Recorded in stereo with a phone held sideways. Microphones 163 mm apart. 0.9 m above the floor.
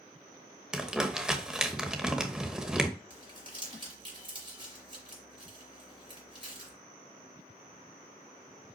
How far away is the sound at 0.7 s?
About 0.8 m.